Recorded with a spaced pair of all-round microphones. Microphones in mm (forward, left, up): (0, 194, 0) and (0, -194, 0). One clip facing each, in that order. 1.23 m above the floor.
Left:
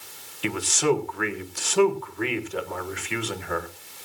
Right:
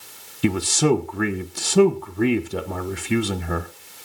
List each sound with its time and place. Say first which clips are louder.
0.4 s a man speaking: right 5 dB; 55° right (ahead or behind), 1.1 m